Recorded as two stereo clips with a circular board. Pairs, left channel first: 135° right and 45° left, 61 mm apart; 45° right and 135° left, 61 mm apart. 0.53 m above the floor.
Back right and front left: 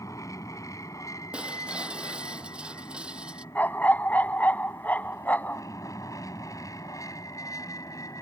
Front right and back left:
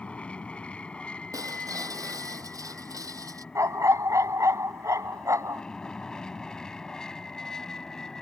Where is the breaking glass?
120° left.